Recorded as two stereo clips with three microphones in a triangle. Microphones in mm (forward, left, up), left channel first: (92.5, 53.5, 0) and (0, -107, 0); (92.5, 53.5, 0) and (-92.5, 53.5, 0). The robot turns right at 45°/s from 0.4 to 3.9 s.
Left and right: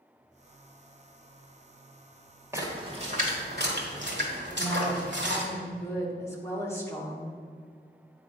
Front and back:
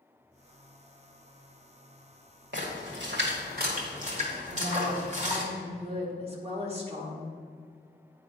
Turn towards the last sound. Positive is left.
turn(degrees=130)